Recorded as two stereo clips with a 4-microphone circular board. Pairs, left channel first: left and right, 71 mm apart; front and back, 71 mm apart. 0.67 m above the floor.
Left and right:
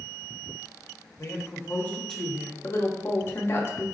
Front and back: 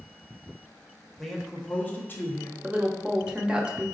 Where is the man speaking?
90° left, 0.9 m; by 2.5 s 15° right, 0.8 m.